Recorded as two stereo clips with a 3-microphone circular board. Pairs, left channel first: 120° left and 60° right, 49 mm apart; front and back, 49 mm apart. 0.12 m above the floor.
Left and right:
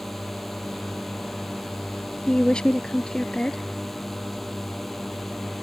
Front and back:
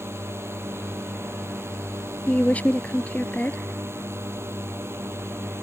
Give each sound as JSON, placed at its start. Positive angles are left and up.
{"t": 0.0, "sound": "a drone", "azimuth_deg": -155}
{"t": 2.3, "sound": "a woman speaking", "azimuth_deg": 55}